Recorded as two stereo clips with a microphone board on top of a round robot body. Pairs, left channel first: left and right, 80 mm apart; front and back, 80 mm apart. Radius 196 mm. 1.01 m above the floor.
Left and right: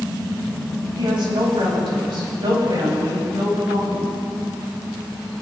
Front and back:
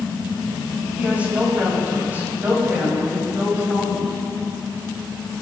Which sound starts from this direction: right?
A woman speaking, at 0.9 s.